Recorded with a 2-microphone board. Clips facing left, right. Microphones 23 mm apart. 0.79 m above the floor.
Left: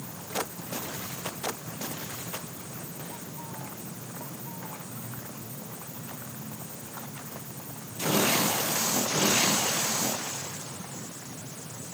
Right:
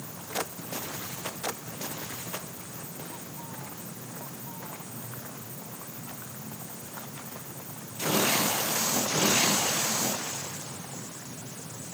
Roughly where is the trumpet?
No trumpet in this recording.